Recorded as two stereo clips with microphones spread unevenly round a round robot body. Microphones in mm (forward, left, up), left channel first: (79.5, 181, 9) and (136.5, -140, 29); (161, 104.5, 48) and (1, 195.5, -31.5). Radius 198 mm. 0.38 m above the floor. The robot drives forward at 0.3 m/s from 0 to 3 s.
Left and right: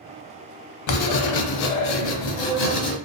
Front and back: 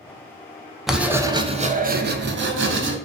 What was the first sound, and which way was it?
Writing, 60° left.